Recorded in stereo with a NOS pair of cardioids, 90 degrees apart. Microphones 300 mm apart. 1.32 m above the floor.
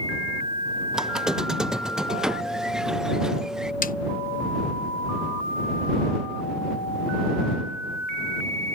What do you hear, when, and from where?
0.9 s a squeak: straight ahead
3.8 s a snare drum: 30° left